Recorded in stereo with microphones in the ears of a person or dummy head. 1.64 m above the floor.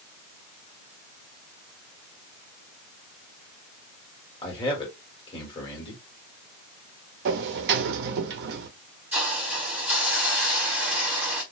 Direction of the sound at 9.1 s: 10° right (ahead or behind).